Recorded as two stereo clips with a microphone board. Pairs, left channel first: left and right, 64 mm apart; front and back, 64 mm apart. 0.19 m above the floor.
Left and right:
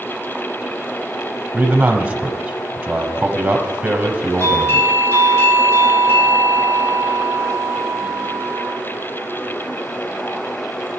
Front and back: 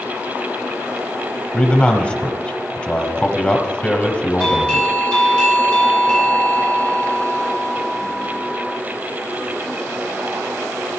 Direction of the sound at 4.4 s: 70° left.